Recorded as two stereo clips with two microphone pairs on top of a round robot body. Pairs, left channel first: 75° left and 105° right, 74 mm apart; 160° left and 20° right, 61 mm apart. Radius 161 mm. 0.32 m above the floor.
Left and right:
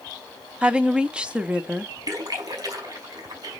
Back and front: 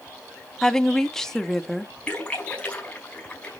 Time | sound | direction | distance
0.6 | a woman speaking | 145° right | 1.2 m
2.1 | a splash | 135° right | 5.5 m